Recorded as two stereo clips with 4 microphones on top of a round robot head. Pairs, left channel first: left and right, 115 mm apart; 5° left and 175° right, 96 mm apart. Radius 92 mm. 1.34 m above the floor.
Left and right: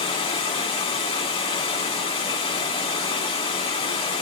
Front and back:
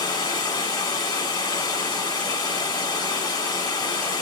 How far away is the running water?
About 1.4 m.